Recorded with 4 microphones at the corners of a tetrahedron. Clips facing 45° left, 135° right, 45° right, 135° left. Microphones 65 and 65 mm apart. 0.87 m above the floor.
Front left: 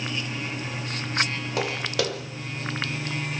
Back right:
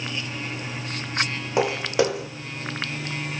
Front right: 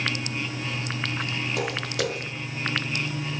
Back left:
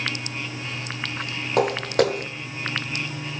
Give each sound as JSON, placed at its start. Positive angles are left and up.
{"t": 1.6, "sound": "footsteps", "azimuth_deg": 160, "distance_m": 1.5}